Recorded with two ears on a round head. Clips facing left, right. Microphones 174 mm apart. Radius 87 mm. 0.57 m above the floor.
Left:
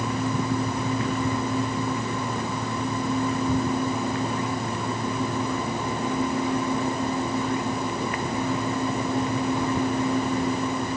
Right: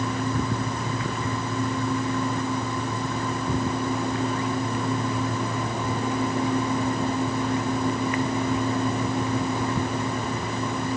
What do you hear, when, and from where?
Only background noise.